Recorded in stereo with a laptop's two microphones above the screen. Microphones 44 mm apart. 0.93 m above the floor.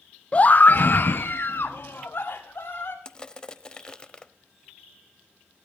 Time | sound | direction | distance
0.3 | a scream | 25° left (ahead or behind) | 0.5 m
3.0 | crushing | 20° left (ahead or behind) | 0.8 m